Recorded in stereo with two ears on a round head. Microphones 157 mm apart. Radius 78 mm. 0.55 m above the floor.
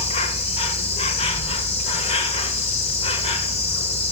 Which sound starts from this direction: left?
An insect, at 0.0 s.